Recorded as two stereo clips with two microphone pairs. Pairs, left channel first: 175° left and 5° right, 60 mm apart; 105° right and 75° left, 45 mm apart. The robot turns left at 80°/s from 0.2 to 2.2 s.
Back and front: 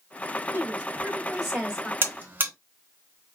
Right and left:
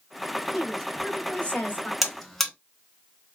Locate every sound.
0.5 s a woman speaking: 15° right, 1.8 m; by 1.9 s 125° right, 1.8 m
2.0 s a buzzer: 10° right, 1.0 m; by 2.5 s 25° right, 1.0 m